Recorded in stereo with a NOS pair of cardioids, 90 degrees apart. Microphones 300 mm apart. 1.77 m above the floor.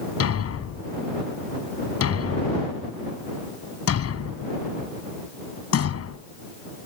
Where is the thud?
55° left.